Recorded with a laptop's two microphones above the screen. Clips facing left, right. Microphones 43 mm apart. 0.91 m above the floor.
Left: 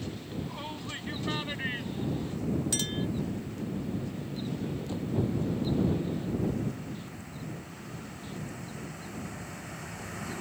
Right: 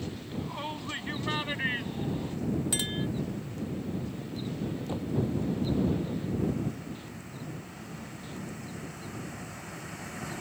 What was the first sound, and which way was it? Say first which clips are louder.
A shout: right 4 dB; 15° right (ahead or behind).